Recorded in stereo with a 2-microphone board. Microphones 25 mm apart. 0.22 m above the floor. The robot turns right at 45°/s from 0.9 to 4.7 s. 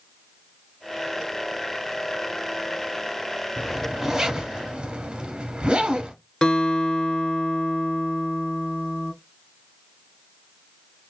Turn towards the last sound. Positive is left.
turn(degrees=40)  # may be behind; listen again after turning